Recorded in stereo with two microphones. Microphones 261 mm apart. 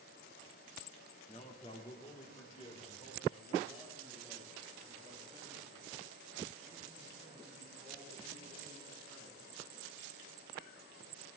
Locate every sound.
1.3 s a man speaking: 25° left (ahead or behind), 1.5 m; by 9.4 s 20° left (ahead or behind), 9 m